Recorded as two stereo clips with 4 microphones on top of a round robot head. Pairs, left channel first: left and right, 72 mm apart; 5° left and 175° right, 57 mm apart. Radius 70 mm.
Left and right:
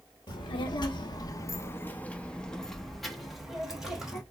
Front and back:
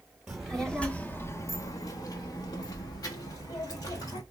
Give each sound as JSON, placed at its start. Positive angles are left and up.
{"t": 0.3, "sound": "a child speaking", "azimuth_deg": 105, "distance_m": 0.8}